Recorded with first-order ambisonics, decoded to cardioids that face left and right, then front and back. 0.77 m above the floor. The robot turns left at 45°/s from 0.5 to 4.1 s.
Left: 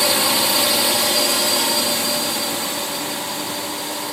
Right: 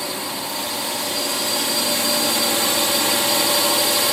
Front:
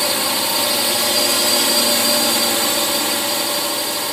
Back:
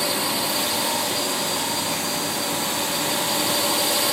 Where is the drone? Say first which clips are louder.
Left 9 dB, front 5 dB; 60° left; by 4.1 s 100° right.